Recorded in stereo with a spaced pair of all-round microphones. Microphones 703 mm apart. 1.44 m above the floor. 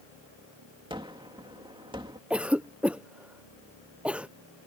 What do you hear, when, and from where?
0.9 s a gunshot: 5° right (ahead or behind)
2.3 s a cough: centre (ahead or behind)